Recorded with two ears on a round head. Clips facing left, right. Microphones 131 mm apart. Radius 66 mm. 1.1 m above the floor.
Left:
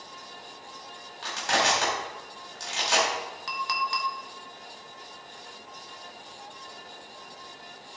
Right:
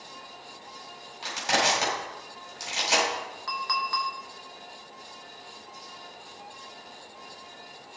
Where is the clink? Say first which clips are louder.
Even; 30° left (ahead or behind), 1.8 m.